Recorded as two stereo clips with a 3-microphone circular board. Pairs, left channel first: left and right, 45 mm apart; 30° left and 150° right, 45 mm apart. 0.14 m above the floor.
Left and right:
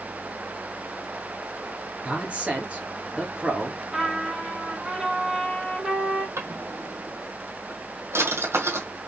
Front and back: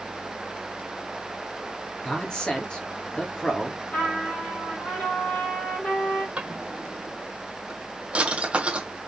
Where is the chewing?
No chewing in this recording.